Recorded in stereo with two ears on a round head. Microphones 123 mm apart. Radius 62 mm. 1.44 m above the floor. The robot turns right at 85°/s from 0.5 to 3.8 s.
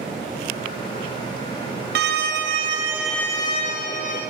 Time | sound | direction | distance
1.9 | a violin | 95° right | 1.3 m